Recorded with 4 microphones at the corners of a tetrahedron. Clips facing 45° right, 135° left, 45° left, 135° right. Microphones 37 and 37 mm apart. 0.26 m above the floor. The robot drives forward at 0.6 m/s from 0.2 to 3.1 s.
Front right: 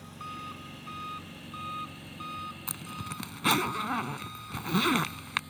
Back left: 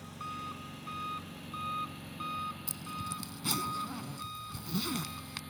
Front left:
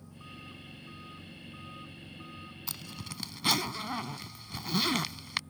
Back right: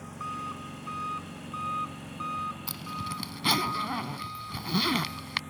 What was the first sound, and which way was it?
An engine running, 130° right.